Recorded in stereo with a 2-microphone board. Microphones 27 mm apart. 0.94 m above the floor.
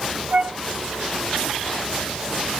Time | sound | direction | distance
0.3 | a flute | 45° right (ahead or behind) | 1.6 m